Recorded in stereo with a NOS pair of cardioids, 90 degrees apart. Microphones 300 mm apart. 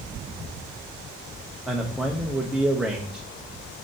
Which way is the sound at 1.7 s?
5° right.